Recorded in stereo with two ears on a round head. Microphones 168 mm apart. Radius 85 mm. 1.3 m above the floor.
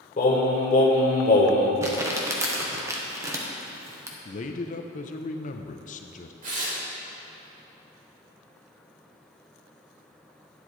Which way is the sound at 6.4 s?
45° right (ahead or behind).